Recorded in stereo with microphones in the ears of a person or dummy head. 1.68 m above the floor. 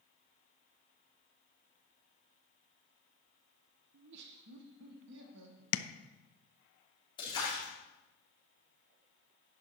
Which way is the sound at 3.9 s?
70° right (ahead or behind).